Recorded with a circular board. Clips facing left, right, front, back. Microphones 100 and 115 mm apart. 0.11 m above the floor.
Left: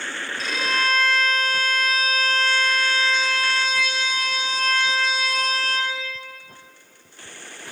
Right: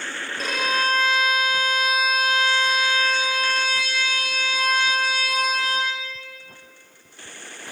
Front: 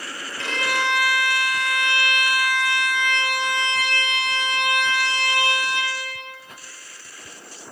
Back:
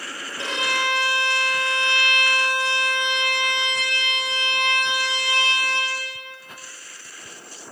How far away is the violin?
About 2 m.